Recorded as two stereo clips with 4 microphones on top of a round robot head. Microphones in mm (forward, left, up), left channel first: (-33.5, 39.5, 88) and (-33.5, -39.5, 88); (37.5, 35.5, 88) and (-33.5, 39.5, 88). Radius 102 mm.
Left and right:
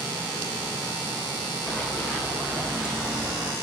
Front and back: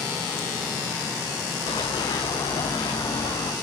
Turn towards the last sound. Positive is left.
turn(degrees=-15)